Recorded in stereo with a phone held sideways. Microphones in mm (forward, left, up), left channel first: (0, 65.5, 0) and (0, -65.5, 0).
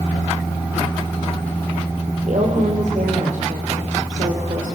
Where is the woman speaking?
80° right, 3.5 m.